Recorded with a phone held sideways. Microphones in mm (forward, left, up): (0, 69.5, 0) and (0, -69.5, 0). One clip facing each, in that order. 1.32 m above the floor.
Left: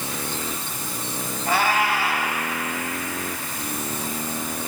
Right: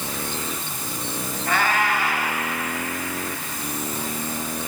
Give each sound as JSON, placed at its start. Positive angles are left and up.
{"t": 1.5, "sound": "a cat meowing", "side_deg": 10, "distance_m": 3.5}